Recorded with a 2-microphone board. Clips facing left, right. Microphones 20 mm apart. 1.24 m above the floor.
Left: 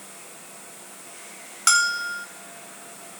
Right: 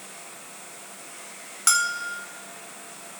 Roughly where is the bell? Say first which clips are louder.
Left 3 dB; centre.